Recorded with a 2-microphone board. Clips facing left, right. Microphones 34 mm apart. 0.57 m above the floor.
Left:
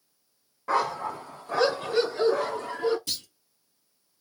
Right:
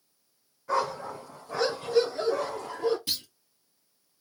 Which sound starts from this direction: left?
A dog barking, at 0.7 s.